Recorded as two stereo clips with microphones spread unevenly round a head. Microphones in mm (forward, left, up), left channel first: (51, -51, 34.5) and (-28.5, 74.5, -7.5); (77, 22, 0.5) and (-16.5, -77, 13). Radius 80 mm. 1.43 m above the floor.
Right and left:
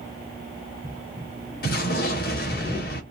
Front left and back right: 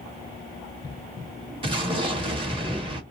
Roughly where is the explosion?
Right.